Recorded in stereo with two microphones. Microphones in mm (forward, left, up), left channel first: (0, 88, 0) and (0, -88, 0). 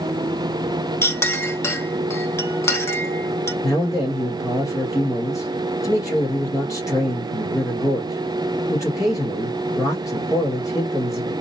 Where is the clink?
15° left (ahead or behind), 0.7 m.